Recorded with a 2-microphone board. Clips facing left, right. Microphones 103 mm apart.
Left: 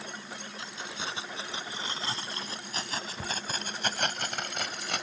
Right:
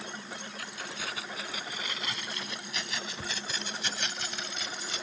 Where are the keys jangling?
25° left (ahead or behind); by 5.0 s 70° left (ahead or behind).